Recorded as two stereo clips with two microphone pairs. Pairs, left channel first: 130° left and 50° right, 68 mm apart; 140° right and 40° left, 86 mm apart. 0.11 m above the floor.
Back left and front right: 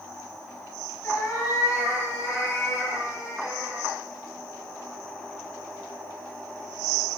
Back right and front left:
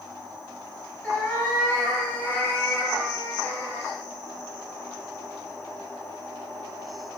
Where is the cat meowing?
160° left, 1.1 m.